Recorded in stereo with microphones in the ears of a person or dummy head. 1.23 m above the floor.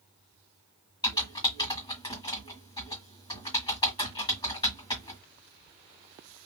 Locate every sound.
1.0 s typing on a keyboard: 20° left (ahead or behind), 1.7 m